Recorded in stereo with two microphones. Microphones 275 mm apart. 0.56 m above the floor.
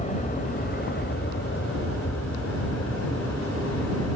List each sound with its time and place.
0.0 s an aircraft: 25° left (ahead or behind); by 4.2 s 65° left (ahead or behind)